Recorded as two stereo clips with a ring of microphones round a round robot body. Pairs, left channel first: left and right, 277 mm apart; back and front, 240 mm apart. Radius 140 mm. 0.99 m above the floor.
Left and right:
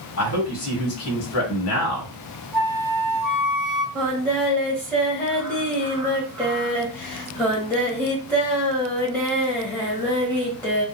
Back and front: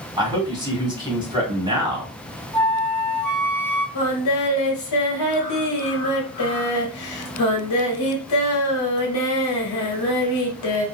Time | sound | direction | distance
0.2 | a man speaking | 70° left | 1.4 m
2.5 | a flute | 95° right | 1.3 m
4.0 | singing | 175° left | 1.1 m